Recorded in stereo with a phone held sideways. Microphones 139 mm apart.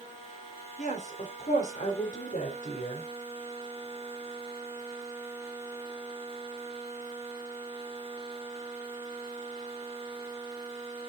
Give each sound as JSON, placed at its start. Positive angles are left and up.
{"t": 0.8, "sound": "a woman speaking", "side_deg": 65, "distance_m": 4.5}